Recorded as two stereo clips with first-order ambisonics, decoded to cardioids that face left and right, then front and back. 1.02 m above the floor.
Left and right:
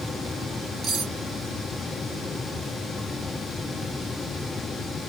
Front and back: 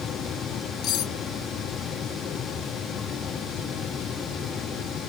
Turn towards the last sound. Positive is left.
turn(degrees=-40)